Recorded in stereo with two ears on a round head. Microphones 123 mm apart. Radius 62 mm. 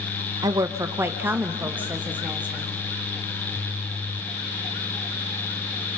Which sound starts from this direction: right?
A woman speaking, at 0.4 s.